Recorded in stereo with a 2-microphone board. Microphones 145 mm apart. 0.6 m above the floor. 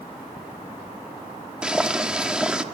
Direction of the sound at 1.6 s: 5° right (ahead or behind).